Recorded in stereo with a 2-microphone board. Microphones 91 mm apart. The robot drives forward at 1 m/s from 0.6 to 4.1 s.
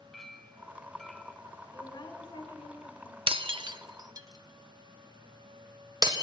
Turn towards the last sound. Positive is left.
turn(degrees=-45)  # may be behind; listen again after turning